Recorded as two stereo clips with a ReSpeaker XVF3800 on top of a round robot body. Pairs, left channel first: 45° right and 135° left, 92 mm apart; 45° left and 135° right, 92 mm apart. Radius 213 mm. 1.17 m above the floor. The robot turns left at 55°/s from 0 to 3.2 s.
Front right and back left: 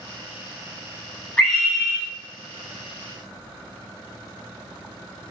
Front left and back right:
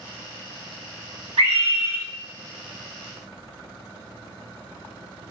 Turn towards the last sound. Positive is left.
turn(degrees=140)